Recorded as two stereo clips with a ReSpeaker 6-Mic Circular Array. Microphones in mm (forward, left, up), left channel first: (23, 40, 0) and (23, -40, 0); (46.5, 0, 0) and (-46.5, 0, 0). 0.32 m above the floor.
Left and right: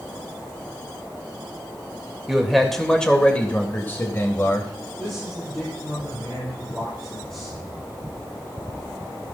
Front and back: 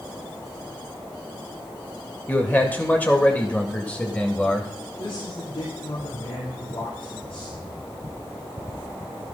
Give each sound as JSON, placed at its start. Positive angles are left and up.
{"t": 2.3, "sound": "a man speaking", "azimuth_deg": -20, "distance_m": 1.6}
{"t": 5.0, "sound": "a man speaking", "azimuth_deg": 10, "distance_m": 7.5}